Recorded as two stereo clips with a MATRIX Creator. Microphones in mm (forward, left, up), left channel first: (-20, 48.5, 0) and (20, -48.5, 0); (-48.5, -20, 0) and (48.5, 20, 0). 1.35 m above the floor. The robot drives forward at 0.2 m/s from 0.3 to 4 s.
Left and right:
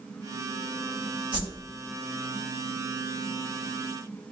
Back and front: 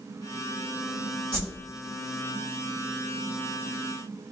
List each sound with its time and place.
1.3 s a whoosh: 110° right, 1.8 m